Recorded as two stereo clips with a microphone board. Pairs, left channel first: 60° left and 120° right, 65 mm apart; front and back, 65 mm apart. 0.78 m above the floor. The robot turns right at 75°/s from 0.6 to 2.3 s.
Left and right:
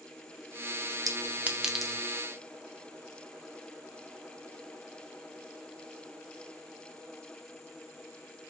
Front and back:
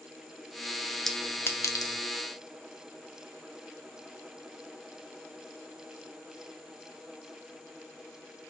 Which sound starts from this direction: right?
A clink, at 1.1 s.